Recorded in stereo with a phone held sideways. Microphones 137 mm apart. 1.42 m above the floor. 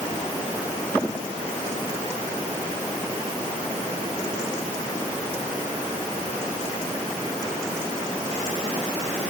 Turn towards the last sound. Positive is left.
No sound to turn to.